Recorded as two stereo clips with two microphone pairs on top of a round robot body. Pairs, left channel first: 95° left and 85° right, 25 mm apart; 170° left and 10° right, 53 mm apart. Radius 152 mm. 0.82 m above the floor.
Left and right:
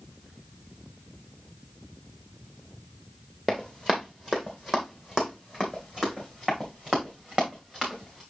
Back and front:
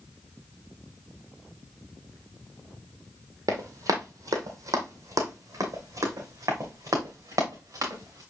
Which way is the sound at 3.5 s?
10° right.